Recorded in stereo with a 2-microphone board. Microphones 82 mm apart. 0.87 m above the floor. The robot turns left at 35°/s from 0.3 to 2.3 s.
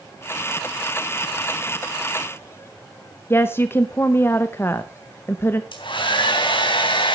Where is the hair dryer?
70° left (ahead or behind), 3 m.